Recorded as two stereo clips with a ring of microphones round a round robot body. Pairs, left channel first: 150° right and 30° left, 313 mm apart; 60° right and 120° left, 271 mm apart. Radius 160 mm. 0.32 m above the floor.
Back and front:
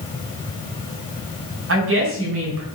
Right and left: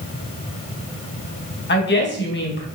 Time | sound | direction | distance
1.7 | a woman speaking | 15° right | 3.5 m